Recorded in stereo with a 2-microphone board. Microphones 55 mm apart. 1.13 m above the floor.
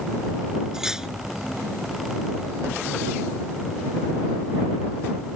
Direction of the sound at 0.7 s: 10° right (ahead or behind).